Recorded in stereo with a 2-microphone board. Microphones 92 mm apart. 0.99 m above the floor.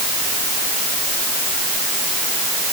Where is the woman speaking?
I don't hear a woman speaking.